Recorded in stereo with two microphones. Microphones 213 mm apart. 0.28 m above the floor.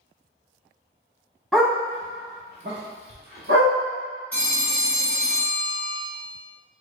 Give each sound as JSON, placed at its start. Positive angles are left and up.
{"t": 1.5, "sound": "a dog barking", "side_deg": 5, "distance_m": 0.7}
{"t": 4.3, "sound": "a phone ringing", "side_deg": 10, "distance_m": 1.7}